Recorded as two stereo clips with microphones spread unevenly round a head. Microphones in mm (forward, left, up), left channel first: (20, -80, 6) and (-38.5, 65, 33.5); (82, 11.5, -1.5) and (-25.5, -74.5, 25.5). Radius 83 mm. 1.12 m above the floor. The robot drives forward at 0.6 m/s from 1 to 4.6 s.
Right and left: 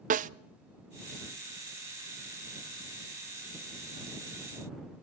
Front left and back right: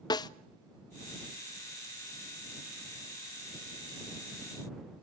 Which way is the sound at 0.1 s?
80° left.